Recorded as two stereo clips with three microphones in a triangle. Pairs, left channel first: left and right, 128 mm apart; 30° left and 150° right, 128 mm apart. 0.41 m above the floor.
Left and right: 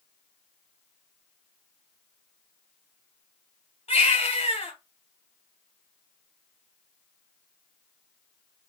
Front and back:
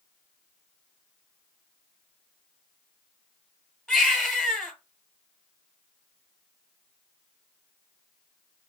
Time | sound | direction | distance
3.9 | a baby crying | 110° left | 2.5 m